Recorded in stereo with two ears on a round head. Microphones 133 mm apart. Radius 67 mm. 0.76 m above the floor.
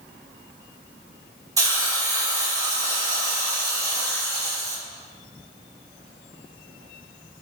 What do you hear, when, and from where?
1.6 s a hiss: 25° right (ahead or behind), 2.5 m